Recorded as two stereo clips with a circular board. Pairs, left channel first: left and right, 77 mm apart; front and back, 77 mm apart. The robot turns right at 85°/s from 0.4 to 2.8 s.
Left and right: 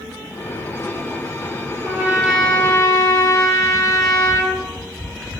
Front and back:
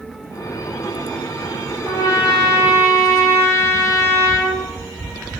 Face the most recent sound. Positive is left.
turn(degrees=50)